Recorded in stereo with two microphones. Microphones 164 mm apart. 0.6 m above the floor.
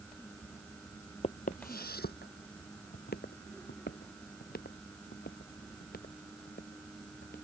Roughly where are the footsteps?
Left.